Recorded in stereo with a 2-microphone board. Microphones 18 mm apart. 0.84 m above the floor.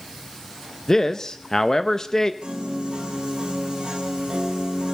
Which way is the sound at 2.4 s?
80° right.